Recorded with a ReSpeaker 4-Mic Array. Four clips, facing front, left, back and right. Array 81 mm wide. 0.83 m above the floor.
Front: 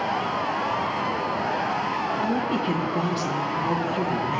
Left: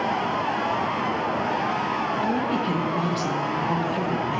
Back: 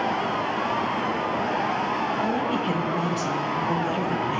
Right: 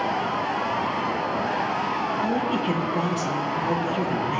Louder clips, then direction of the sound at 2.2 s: Even, even; 125° right.